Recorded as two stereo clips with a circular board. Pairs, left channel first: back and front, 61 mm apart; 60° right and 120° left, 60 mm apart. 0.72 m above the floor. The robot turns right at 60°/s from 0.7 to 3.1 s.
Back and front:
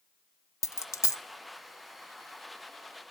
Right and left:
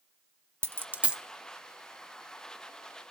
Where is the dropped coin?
165° left, 0.6 m; by 1.2 s 165° right, 0.6 m.